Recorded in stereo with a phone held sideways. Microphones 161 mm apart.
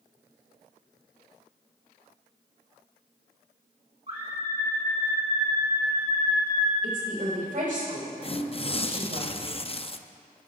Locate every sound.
4.1 s a scream: 40° right (ahead or behind), 2 m; by 6.7 s 50° right (ahead or behind), 4 m
6.8 s a woman speaking: 55° right (ahead or behind), 5.5 m
8.2 s tearing paper: 35° left (ahead or behind), 0.6 m